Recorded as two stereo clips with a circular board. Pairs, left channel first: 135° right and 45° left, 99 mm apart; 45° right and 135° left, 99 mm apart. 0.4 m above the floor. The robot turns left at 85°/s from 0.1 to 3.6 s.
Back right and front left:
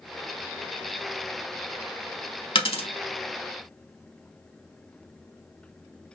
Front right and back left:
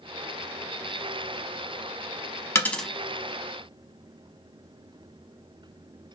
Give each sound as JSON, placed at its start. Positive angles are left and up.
{"t": 2.5, "sound": "a dropped coin", "azimuth_deg": -105, "distance_m": 0.5}